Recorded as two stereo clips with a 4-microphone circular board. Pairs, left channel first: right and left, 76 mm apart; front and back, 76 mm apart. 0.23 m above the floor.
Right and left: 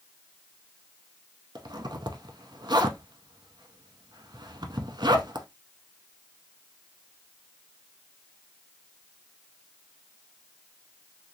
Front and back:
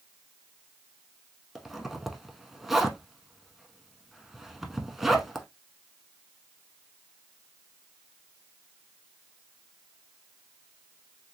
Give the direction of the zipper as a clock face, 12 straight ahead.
9 o'clock.